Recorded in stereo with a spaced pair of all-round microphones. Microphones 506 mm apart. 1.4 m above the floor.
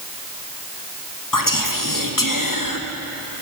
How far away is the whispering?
About 0.9 m.